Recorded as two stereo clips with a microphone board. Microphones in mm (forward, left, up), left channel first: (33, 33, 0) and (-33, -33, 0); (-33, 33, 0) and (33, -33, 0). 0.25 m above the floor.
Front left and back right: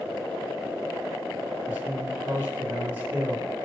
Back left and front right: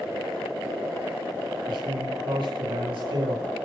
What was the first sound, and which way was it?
A man speaking, 65° right.